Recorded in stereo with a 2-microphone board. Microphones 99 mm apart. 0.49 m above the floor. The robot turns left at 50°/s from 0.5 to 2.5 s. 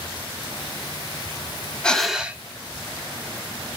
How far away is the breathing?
About 0.6 m.